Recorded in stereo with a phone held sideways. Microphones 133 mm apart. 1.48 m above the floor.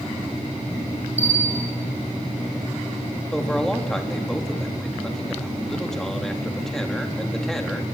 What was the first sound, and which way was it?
A bell, 10° right (ahead or behind).